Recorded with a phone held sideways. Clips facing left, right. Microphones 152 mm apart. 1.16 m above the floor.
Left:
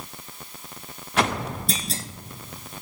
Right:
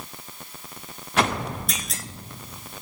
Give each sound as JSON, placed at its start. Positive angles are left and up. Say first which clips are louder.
{"t": 1.7, "sound": "a clunk", "louder": "left 4 dB", "side_deg": 30, "distance_m": 0.7}